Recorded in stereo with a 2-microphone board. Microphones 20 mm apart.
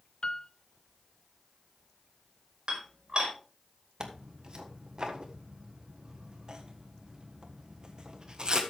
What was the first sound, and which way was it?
A piano, 50° left (ahead or behind).